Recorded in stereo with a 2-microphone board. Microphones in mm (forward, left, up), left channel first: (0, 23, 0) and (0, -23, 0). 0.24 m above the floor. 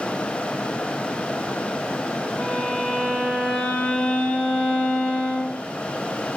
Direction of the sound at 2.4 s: 25° left (ahead or behind).